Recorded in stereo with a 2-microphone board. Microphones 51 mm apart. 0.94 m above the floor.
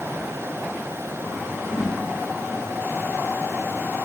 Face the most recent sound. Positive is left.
turn(degrees=80)